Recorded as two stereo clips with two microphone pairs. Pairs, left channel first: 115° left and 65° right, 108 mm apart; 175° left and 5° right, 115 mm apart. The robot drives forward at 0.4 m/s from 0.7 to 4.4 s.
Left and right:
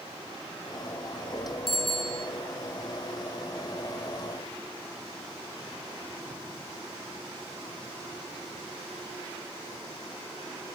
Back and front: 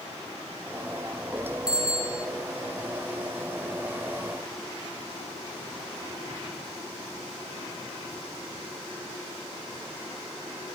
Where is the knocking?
I don't hear knocking.